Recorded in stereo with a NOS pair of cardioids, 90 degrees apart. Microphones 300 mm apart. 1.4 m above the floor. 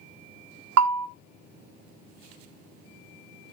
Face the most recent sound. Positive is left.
turn(degrees=-60)